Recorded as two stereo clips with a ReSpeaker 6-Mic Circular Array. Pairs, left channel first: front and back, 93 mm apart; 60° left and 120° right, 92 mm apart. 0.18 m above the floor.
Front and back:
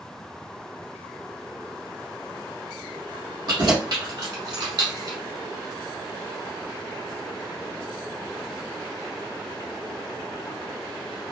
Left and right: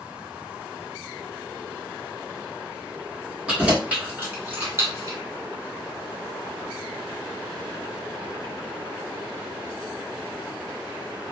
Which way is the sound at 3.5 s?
165° left.